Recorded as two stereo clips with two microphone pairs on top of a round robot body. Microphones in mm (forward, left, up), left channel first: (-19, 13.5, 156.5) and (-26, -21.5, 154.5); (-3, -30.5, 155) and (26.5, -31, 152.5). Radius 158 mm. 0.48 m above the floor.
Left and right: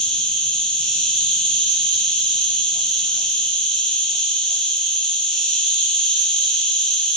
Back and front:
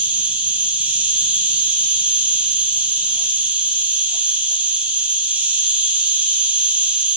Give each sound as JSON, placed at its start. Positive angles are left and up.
{"t": 0.0, "sound": "an insect", "azimuth_deg": 10, "distance_m": 1.4}